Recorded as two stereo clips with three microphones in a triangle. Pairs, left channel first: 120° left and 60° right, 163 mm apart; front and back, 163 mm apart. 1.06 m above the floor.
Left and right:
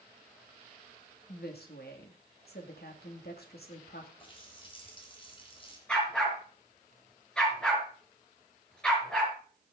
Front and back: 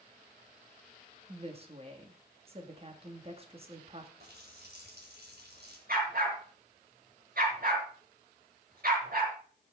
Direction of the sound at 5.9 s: 155° right.